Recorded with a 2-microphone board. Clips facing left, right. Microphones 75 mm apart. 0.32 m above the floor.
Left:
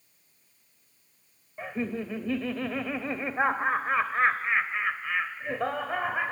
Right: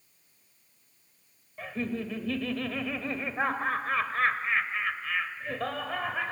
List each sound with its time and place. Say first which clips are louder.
1.6 s laughter: left 1 dB; 20° left (ahead or behind), 0.9 m